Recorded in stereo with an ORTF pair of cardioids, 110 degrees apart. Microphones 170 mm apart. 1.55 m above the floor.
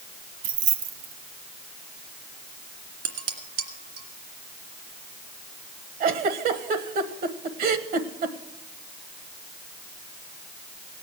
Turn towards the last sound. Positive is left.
turn(degrees=-60)